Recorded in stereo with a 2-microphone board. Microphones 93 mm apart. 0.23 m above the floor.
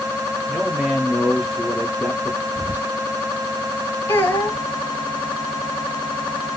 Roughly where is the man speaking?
Centre.